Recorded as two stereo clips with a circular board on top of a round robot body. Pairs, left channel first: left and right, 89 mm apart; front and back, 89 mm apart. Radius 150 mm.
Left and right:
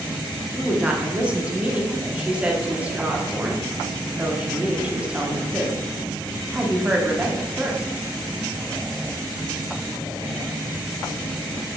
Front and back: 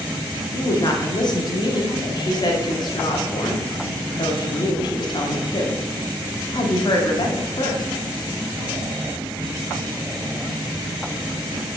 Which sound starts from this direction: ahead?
A woman speaking, at 0.5 s.